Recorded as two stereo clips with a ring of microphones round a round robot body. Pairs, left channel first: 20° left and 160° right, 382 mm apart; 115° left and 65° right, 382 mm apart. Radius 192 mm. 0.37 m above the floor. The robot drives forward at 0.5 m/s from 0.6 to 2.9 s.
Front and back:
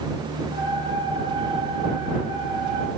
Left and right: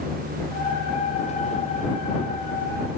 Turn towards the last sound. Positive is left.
No sound to turn to.